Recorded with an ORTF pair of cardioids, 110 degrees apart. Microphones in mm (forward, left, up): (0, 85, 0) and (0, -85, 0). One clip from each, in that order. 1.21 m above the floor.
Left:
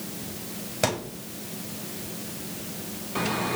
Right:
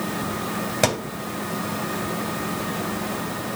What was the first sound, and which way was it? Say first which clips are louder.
A thud: right 3 dB; 30° right.